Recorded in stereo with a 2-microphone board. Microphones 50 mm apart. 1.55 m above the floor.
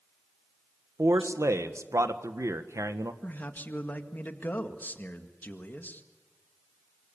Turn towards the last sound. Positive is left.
turn(degrees=35)  # may be behind; listen again after turning